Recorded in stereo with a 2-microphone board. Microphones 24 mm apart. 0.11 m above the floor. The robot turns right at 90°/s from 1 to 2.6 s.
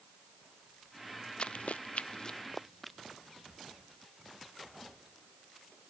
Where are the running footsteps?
50° left (ahead or behind); by 3.0 s centre (ahead or behind).